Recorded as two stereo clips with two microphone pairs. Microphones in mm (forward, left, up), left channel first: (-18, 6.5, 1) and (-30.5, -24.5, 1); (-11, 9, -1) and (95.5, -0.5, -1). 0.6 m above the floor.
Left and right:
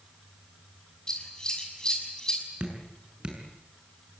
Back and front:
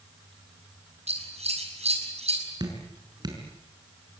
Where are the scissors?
Straight ahead, 5.5 m.